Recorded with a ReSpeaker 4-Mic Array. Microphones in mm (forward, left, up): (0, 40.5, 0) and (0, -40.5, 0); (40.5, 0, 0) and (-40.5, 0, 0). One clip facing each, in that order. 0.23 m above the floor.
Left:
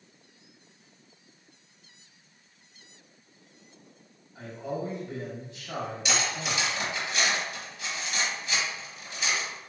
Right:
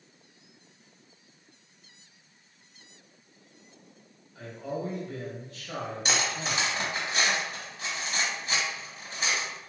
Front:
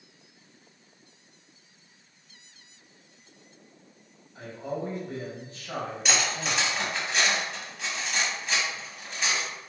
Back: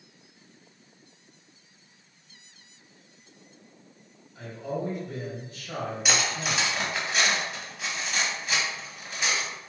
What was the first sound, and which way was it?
A man speaking, 30° left.